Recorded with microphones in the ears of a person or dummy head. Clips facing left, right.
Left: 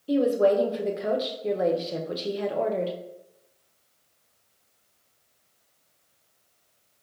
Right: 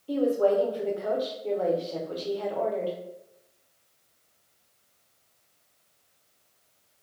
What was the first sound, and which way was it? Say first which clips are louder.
A woman speaking: left 2 dB; 30° left (ahead or behind).